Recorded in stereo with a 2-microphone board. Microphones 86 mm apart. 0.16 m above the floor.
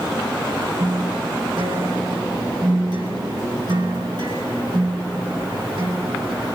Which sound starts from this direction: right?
A guitar, at 0.8 s.